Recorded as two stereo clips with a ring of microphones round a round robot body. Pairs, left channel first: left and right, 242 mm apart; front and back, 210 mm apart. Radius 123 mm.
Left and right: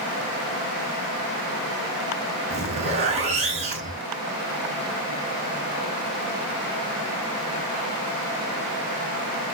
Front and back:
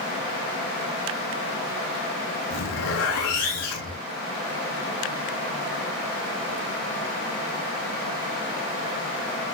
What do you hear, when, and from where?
2.5 s a zipper: 25° right, 9 m